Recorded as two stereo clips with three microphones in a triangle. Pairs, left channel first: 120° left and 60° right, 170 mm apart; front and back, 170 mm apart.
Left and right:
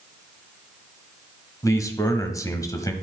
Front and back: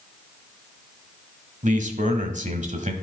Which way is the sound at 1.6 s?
175° right.